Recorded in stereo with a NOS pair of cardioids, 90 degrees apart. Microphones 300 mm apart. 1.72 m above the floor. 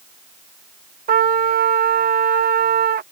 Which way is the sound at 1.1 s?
30° right.